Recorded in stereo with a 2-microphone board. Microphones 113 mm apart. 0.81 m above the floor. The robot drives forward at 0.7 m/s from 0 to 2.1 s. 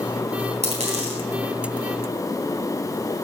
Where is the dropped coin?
75° right (ahead or behind), 3.5 m; by 1.2 s 70° right (ahead or behind), 3.5 m.